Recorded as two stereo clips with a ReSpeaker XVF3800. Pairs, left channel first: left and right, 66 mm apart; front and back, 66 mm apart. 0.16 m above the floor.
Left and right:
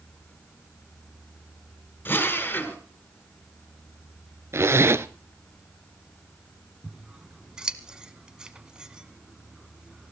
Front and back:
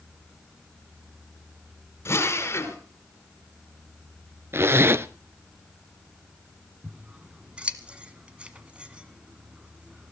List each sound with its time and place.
2.0 s a drill: 35° left, 2.5 m
4.5 s a zipper: 130° right, 0.6 m
6.8 s scissors: 145° right, 1.2 m